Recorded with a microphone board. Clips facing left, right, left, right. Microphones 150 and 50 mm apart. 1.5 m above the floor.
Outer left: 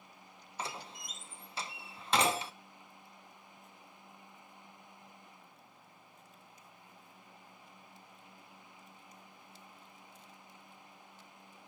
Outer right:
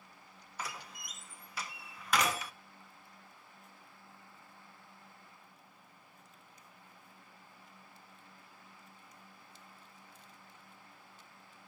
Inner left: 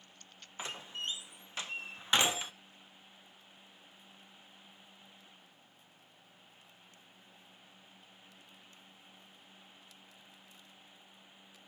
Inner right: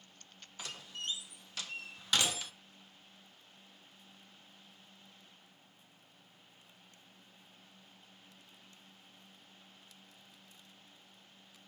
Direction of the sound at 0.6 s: 25° left (ahead or behind).